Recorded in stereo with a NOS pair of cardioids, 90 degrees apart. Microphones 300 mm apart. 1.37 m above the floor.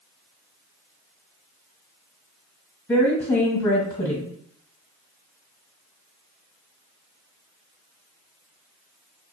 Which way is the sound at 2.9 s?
5° left.